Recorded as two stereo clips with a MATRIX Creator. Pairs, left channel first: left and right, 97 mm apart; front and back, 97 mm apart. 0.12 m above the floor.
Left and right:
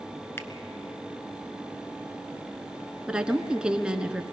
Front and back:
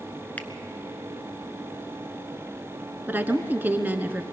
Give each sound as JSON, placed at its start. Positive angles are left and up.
{"t": 0.4, "sound": "a finger snap", "azimuth_deg": 55, "distance_m": 0.9}
{"t": 3.1, "sound": "a woman speaking", "azimuth_deg": -155, "distance_m": 1.1}